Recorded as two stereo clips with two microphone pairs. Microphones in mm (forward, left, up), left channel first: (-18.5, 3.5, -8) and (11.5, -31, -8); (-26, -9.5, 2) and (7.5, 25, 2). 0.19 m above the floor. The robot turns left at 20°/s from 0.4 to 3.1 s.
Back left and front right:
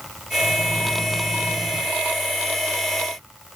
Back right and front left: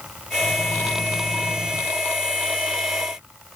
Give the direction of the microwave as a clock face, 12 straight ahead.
12 o'clock.